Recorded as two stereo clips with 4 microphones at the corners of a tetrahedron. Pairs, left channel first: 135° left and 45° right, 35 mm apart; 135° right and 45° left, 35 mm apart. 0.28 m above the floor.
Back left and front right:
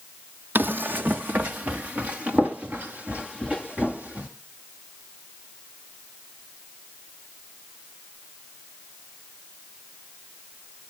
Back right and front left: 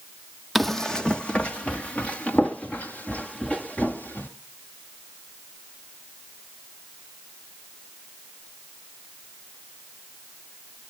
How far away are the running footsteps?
About 0.5 m.